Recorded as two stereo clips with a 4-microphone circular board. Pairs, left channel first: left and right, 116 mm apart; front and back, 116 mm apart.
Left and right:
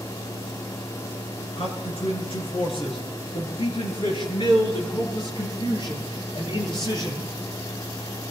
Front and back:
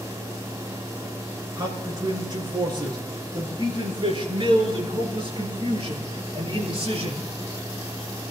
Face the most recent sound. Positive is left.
turn(degrees=140)